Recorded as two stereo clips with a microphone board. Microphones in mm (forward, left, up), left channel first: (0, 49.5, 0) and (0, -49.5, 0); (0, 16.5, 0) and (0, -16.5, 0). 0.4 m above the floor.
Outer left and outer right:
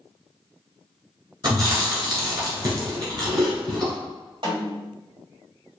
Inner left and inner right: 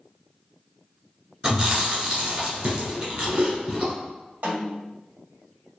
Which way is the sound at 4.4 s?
60° right (ahead or behind).